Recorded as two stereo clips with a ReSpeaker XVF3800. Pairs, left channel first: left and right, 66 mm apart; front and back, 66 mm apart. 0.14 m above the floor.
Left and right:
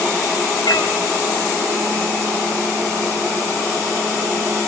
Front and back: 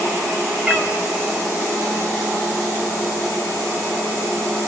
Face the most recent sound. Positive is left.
turn(degrees=105)